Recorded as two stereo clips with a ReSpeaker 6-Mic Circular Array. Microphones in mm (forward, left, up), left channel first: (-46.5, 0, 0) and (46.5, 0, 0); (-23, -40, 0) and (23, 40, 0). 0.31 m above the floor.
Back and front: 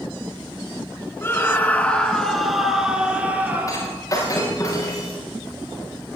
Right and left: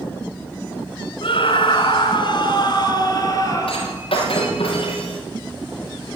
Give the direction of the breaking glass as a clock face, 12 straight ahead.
4 o'clock.